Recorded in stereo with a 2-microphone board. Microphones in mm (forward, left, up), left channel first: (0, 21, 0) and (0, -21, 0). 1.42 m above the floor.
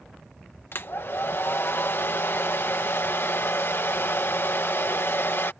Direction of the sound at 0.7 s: 60° left (ahead or behind).